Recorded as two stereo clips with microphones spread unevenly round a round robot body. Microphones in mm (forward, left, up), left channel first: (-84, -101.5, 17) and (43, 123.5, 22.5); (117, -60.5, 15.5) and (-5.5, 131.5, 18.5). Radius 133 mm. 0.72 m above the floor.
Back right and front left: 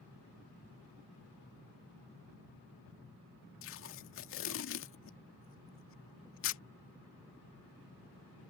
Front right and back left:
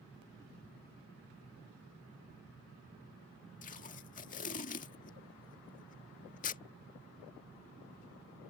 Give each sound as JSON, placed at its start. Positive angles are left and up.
{"t": 3.6, "sound": "tape being pulled", "azimuth_deg": -105}